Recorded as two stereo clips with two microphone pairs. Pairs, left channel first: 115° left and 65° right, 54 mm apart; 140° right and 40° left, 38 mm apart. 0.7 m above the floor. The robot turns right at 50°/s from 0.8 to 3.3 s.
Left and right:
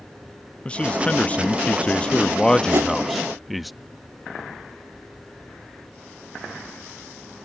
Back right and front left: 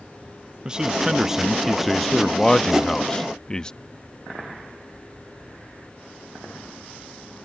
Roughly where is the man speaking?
Left.